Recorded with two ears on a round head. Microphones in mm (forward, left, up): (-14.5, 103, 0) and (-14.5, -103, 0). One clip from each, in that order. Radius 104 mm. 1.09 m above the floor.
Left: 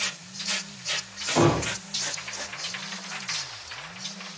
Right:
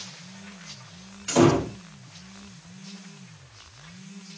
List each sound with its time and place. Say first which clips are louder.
1.3 s a door slam: right 2 dB; 15° right (ahead or behind), 1.2 m